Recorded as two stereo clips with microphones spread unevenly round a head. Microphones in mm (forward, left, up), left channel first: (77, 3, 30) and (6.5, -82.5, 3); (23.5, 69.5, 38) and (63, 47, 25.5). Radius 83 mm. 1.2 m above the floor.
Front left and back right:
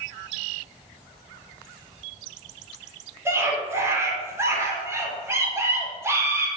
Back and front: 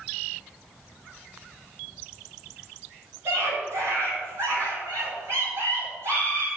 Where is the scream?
65° right, 4.5 m.